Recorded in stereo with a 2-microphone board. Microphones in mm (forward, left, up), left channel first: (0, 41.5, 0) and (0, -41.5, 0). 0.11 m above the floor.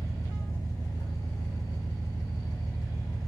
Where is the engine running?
50° left (ahead or behind), 2 m.